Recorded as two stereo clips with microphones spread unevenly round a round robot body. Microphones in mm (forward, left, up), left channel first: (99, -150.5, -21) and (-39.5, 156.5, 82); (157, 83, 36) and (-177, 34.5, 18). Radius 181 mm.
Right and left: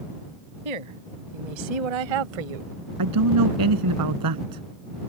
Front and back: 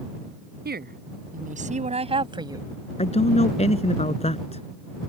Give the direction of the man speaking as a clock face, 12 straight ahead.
9 o'clock.